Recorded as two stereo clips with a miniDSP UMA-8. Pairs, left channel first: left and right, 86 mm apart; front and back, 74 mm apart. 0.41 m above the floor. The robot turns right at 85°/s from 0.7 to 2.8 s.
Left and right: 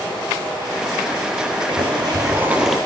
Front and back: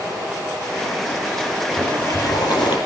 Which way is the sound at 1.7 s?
90° right.